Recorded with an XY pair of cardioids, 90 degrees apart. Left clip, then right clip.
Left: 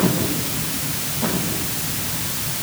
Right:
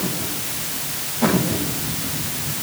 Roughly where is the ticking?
No ticking in this recording.